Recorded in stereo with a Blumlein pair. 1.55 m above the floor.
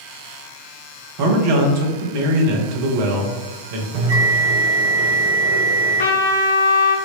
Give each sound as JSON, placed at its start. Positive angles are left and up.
{"t": 1.2, "sound": "a man speaking", "azimuth_deg": -50, "distance_m": 0.9}
{"t": 3.9, "sound": "a bell", "azimuth_deg": -55, "distance_m": 0.7}
{"t": 6.0, "sound": "a trumpet", "azimuth_deg": 60, "distance_m": 0.8}